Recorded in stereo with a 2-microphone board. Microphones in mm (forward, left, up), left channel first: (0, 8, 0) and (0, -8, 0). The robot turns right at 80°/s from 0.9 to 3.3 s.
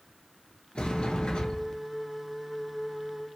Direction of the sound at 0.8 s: 70° left.